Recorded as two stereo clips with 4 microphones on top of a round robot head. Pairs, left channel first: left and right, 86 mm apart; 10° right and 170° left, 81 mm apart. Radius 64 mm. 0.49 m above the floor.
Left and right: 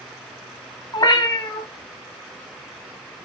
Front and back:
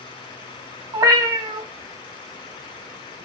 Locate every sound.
0.9 s a cat meowing: 125° left, 1.9 m